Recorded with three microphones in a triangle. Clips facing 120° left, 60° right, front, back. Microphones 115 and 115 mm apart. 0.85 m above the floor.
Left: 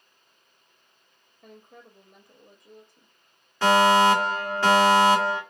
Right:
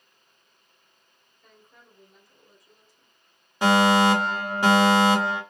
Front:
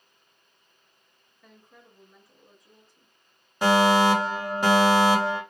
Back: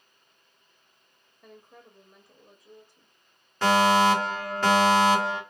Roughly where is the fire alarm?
Ahead right.